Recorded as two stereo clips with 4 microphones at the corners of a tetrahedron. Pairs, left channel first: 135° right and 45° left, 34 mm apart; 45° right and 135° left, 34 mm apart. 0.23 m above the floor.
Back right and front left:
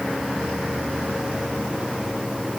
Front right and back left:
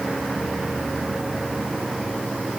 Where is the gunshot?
No gunshot in this recording.